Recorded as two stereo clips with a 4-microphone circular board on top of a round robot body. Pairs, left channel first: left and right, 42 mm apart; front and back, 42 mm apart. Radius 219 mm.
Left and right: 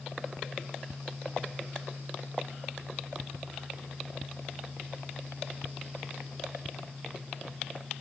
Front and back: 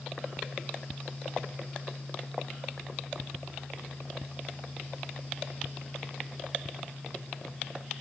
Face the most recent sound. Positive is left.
No sound to turn to.